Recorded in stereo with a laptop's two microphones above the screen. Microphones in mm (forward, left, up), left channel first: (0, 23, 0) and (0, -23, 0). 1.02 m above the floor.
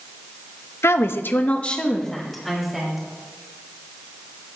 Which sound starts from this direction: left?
A woman speaking, at 0.8 s.